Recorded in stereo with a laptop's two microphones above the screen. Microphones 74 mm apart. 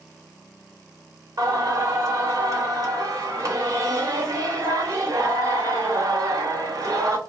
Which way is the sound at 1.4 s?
55° right (ahead or behind).